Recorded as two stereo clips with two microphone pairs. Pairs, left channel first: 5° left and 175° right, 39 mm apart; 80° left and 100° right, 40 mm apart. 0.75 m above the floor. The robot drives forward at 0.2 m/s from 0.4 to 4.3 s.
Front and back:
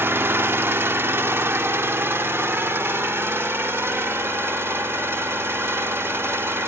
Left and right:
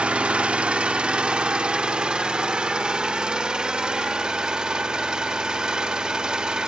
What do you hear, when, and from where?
0.0 s an engine running: 160° right, 0.9 m; by 6.7 s 170° right, 1.7 m